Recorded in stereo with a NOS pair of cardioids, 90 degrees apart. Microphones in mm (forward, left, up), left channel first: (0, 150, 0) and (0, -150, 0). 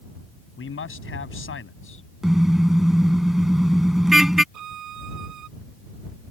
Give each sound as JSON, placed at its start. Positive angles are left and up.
{"t": 0.6, "sound": "a man speaking", "azimuth_deg": 40}
{"t": 2.2, "sound": "a car horn", "azimuth_deg": 0}
{"t": 4.5, "sound": "a violin", "azimuth_deg": -65}